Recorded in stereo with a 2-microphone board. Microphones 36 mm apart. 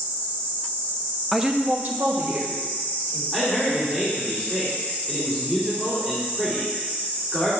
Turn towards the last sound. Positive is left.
turn(degrees=-5)  # may be behind; listen again after turning